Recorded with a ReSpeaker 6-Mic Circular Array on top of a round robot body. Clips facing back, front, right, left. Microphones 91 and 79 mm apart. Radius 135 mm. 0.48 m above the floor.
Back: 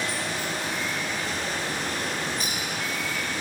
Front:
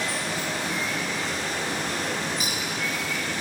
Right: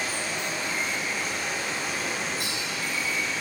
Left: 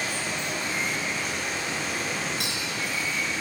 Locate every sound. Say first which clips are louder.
0.0 s running water: front 1 dB, even; straight ahead, 3.5 m
2.4 s a clink: front 1 dB, even; 75° left, 4.5 m